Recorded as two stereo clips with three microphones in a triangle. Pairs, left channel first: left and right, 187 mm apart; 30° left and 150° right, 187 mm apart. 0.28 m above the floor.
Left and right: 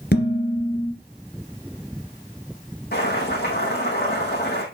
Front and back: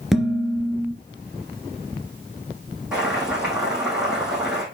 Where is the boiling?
125° left, 4.5 m.